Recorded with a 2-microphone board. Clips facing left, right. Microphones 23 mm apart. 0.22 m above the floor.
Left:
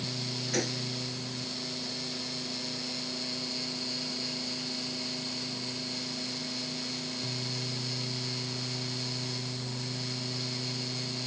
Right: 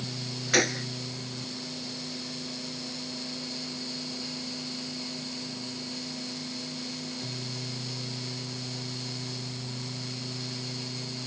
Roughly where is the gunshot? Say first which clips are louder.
Right 8 dB; right.